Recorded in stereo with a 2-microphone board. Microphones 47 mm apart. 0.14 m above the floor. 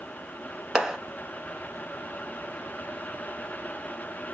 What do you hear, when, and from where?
0.8 s a clap: 15° right (ahead or behind), 1.0 m